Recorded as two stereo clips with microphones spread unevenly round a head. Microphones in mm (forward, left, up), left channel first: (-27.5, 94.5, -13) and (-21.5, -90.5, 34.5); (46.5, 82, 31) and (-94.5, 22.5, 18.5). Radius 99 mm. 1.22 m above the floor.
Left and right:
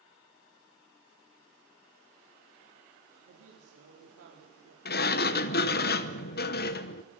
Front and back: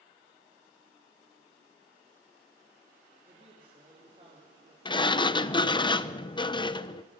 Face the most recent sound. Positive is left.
turn(degrees=85)